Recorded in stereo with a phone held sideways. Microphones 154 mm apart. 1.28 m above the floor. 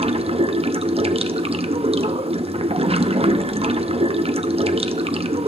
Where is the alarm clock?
No alarm clock in this recording.